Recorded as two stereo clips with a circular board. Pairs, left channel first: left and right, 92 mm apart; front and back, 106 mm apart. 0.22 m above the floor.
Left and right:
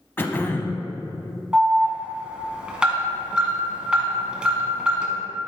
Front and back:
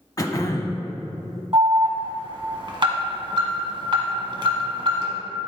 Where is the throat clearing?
35° left, 0.8 m.